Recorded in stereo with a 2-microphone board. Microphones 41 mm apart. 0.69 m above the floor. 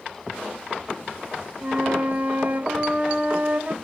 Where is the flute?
35° right (ahead or behind), 0.8 m.